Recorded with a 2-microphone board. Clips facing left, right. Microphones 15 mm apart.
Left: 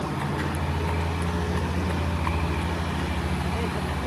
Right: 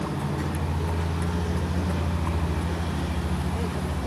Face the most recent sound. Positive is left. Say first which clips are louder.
# left 1 dB
turn(degrees=50)  # may be behind; listen again after turning